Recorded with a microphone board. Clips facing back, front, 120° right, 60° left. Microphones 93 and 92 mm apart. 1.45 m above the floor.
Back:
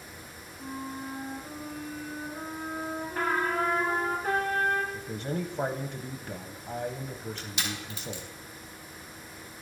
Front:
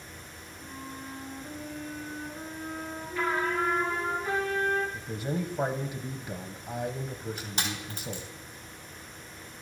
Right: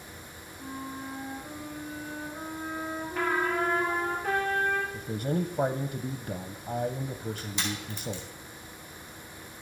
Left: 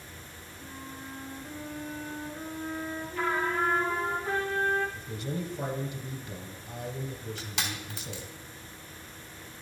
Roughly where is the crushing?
Ahead left.